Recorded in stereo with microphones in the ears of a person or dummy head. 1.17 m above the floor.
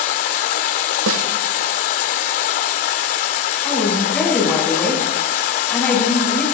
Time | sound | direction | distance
0.0 | running water | 50° left (ahead or behind) | 1.1 m
1.1 | a snare drum | 80° right | 1.6 m
3.6 | a woman speaking | 5° left (ahead or behind) | 10 m